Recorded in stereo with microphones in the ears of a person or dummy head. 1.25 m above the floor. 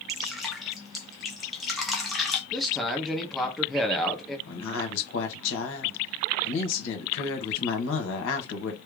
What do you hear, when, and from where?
0.1 s dripping: 5° right (ahead or behind), 0.8 m
2.5 s a man speaking: 5° left (ahead or behind), 0.8 m
4.5 s a woman speaking: 75° left (ahead or behind), 1.4 m